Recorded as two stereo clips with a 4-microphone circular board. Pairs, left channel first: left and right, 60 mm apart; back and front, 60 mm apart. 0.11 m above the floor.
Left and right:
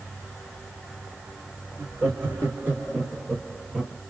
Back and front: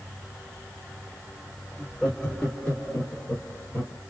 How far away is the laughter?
About 1.7 m.